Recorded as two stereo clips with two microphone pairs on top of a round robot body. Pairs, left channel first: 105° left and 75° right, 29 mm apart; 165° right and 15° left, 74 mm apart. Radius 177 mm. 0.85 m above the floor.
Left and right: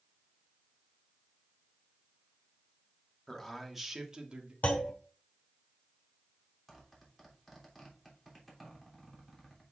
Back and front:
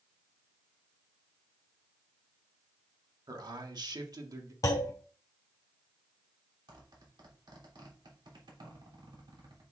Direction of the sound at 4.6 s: 145° left.